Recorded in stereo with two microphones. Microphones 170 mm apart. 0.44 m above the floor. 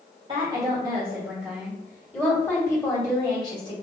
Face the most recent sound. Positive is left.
turn(degrees=30)  # may be behind; listen again after turning